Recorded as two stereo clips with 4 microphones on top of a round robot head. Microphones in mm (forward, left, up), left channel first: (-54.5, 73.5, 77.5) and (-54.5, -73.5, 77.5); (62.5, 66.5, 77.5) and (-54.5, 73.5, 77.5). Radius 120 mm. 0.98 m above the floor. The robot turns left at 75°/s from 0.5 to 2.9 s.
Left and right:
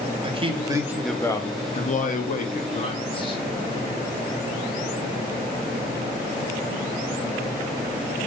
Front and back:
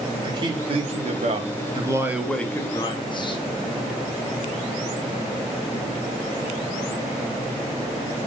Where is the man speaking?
140° right, 0.9 m; by 3.4 s 40° left, 0.9 m.